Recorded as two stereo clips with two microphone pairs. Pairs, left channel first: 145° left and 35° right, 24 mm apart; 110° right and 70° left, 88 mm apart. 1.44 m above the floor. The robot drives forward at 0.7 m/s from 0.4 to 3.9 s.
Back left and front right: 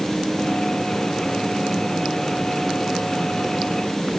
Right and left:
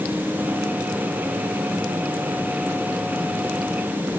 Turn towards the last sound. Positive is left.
No sound to turn to.